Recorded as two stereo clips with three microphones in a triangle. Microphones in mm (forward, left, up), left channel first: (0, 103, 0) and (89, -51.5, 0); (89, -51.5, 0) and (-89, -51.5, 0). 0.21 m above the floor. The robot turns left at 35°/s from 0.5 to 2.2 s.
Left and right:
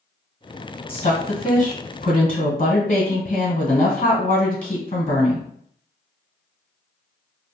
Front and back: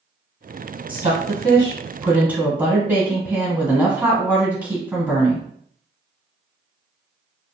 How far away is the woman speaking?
About 1.4 m.